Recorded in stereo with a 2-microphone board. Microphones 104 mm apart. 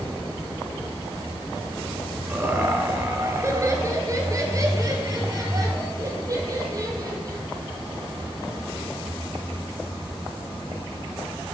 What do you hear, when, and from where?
2.3 s laughter: 20° right (ahead or behind), 1.7 m; by 7.4 s 35° right (ahead or behind), 5 m